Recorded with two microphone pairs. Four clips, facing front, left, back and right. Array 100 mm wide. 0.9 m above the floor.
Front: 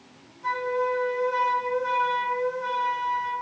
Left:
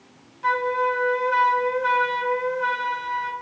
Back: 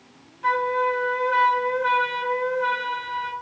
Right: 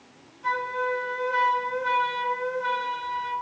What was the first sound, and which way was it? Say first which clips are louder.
A flute: left 5 dB, back 4 dB; 135° left.